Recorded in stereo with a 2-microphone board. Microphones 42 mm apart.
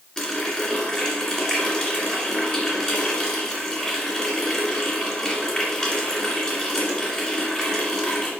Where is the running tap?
15° left (ahead or behind), 2.5 m.